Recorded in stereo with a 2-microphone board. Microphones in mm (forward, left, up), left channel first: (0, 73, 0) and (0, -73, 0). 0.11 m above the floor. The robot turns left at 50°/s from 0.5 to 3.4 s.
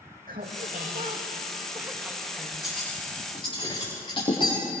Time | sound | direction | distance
0.3 | laughter | 95° right | 5.5 m
2.6 | cutlery clinking | 5° right (ahead or behind) | 8 m